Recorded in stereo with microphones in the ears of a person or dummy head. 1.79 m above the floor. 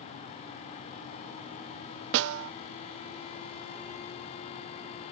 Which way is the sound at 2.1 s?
70° right (ahead or behind).